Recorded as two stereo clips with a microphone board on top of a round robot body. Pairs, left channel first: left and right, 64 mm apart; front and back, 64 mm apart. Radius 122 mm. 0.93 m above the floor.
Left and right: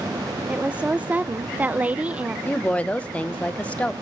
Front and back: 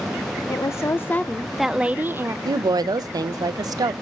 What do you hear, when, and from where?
0.5 s a woman speaking: 20° right, 0.9 m; by 2.4 s 155° right, 0.8 m
2.5 s a woman speaking: 160° left, 0.6 m